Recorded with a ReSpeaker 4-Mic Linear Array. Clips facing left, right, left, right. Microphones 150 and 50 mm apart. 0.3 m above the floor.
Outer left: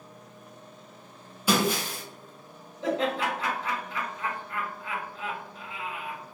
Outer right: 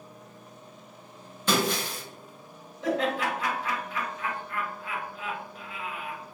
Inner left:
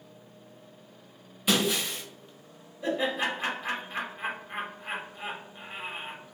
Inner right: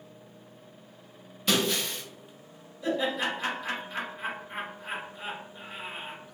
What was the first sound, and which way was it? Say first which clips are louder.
Breaking glass: outer left 1 dB, inner left 1 dB; 10° left (ahead or behind).